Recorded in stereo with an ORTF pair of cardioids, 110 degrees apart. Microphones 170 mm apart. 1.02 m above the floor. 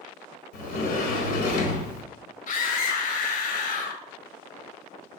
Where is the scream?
60° left, 1.0 m.